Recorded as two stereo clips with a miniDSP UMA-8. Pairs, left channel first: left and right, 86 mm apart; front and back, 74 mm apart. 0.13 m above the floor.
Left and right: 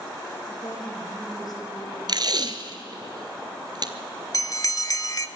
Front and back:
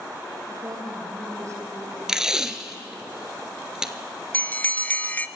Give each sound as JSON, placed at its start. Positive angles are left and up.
{"t": 0.5, "sound": "a woman speaking", "azimuth_deg": 145, "distance_m": 5.5}
{"t": 2.1, "sound": "tape being pulled", "azimuth_deg": -100, "distance_m": 1.0}
{"t": 4.3, "sound": "a bell", "azimuth_deg": 60, "distance_m": 0.7}